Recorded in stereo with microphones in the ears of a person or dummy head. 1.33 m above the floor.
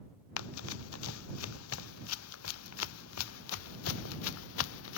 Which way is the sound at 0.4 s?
75° left (ahead or behind).